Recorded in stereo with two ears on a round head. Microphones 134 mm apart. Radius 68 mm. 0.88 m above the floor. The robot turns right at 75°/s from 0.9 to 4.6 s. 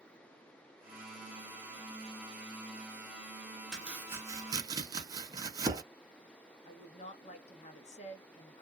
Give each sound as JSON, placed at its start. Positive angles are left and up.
{"t": 3.7, "sound": "chopping", "side_deg": -5, "distance_m": 0.7}
{"t": 6.7, "sound": "a woman speaking", "side_deg": 50, "distance_m": 1.1}